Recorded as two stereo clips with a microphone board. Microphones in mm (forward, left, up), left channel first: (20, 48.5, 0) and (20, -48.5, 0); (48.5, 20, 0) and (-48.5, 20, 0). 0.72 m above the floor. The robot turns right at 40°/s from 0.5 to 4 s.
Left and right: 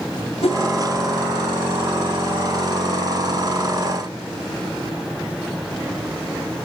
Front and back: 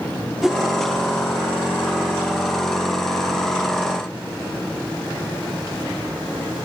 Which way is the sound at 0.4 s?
90° left.